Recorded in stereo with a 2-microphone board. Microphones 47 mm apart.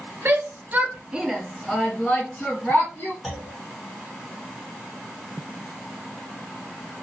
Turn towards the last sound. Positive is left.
turn(degrees=0)  # may be behind; listen again after turning